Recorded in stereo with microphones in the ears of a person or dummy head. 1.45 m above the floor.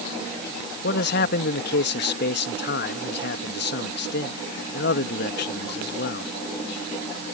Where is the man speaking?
60° left (ahead or behind).